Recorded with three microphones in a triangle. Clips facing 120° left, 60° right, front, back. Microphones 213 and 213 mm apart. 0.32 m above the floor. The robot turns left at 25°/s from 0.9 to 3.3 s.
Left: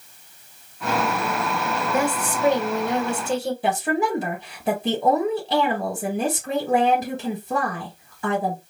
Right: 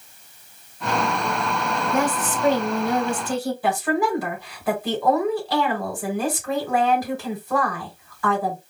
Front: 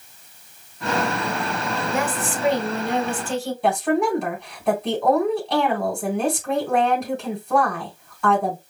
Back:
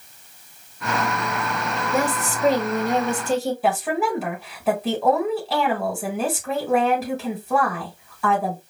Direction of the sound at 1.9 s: 160° right.